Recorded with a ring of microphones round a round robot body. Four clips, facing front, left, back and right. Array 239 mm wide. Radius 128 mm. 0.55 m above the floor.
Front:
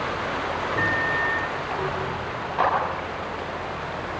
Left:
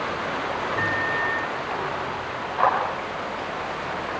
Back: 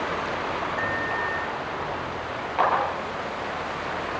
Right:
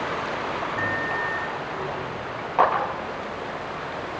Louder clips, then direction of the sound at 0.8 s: Left 2 dB, front 3 dB; 5° left.